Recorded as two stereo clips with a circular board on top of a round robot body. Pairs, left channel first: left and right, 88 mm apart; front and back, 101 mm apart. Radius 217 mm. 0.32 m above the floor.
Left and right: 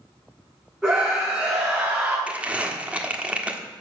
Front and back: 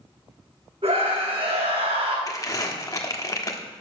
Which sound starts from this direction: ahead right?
Crumpling, at 2.3 s.